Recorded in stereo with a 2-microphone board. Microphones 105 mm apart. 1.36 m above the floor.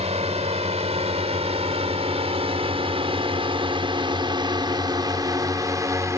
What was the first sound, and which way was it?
A drone, 80° right.